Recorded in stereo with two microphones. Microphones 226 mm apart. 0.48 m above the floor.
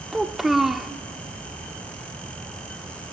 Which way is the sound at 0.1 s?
Centre (ahead or behind).